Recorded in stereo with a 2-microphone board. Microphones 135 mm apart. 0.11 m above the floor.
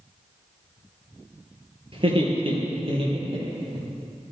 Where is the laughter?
45° right (ahead or behind), 2.5 m.